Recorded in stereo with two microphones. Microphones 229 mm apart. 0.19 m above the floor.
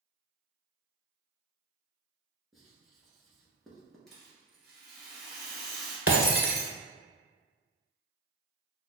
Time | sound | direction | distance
2.5 | writing | centre (ahead or behind) | 1.2 m
4.1 | a rattle | centre (ahead or behind) | 2.0 m
6.1 | breaking glass | 65° left (ahead or behind) | 0.8 m